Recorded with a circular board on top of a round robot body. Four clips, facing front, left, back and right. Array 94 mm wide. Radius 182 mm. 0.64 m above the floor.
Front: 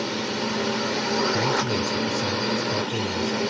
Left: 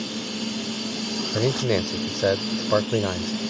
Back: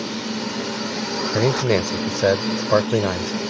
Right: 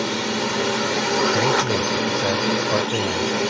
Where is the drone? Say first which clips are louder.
Right 7 dB, even; 80° right.